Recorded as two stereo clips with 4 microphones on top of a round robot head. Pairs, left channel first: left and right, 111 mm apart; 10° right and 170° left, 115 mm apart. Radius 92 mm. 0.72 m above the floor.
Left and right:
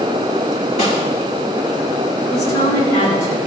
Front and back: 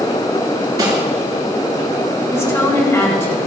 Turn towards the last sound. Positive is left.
turn(degrees=55)